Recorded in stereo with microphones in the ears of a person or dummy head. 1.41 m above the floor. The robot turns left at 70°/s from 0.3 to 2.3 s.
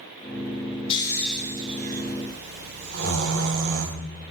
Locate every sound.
0.9 s snoring: 30° left (ahead or behind), 1.4 m; by 4.0 s 70° right (ahead or behind), 1.4 m